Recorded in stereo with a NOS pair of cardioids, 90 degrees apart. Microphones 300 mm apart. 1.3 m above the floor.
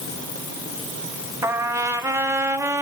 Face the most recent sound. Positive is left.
turn(degrees=-10)